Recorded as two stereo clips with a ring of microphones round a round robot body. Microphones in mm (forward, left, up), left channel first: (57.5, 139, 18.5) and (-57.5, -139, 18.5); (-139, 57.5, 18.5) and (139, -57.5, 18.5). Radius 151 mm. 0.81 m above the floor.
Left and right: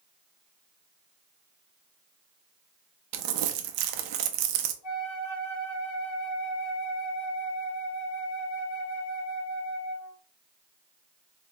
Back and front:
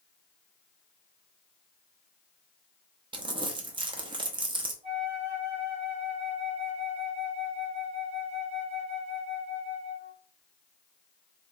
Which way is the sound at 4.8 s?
50° left.